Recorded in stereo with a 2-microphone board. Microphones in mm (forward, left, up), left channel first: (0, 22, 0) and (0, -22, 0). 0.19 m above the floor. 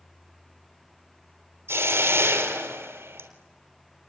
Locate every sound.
1.7 s a hiss: 70° right (ahead or behind), 3 m